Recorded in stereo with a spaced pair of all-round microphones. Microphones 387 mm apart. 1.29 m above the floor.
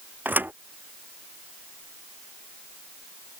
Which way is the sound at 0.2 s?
5° right (ahead or behind).